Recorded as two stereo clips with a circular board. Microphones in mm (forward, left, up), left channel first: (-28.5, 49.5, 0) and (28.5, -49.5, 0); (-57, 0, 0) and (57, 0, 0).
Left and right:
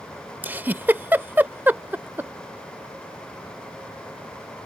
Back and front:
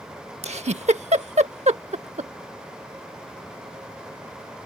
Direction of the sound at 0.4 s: 15° left.